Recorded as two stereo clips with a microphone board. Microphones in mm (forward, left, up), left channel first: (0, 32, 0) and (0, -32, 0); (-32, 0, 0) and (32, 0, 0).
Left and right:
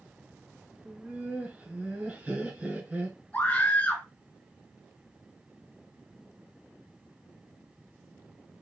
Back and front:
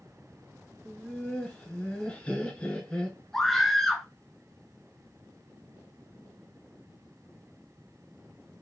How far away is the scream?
About 1.2 m.